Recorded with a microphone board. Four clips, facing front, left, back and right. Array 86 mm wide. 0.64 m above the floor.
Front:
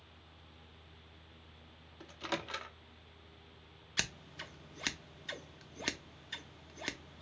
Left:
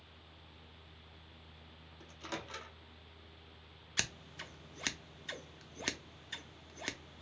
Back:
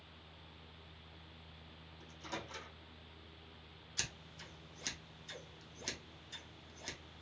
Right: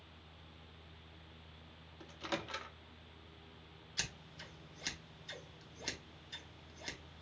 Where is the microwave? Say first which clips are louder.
Right 3 dB, front 7 dB; 20° right, 0.5 m.